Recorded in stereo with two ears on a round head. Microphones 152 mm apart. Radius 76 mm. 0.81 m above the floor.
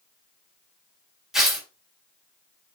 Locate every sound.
1.3 s tearing paper: centre (ahead or behind), 4 m